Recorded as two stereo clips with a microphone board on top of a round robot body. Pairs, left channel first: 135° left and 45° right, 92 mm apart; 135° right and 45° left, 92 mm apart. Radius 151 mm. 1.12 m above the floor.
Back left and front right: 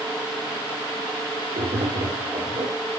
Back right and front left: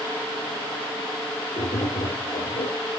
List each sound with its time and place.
1.6 s tapping: 80° right, 2 m